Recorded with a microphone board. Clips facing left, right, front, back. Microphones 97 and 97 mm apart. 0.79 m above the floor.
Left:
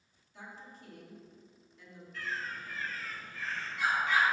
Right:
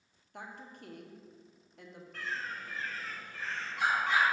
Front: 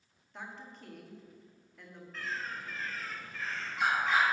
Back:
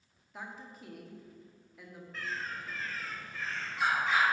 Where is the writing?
I don't hear writing.